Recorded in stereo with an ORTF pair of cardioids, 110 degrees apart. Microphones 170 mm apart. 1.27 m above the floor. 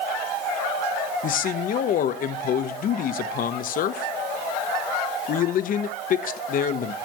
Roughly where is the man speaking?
Ahead left.